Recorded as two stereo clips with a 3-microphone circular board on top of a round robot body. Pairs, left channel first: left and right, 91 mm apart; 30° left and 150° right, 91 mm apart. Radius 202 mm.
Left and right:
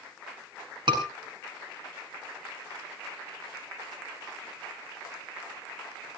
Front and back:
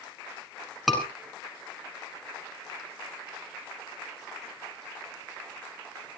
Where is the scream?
60° right, 7 m.